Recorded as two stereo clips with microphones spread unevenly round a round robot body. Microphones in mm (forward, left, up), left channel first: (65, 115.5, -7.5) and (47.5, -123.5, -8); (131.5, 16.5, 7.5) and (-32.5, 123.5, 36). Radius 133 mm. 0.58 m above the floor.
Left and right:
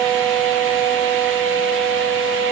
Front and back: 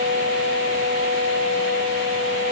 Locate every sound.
Only background noise.